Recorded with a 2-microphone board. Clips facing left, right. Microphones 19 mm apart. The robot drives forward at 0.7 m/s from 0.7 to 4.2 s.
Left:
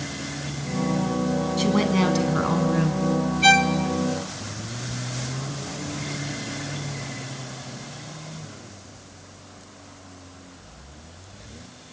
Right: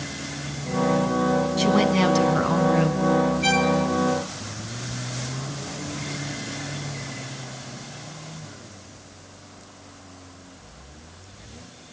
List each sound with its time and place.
1.6 s a woman speaking: centre (ahead or behind), 2 m
3.4 s a violin: 35° left (ahead or behind), 0.7 m; by 3.8 s 30° left (ahead or behind), 0.8 m